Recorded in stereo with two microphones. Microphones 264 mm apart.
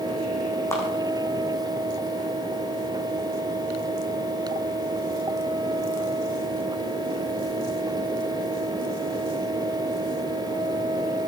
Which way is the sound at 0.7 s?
10° left (ahead or behind).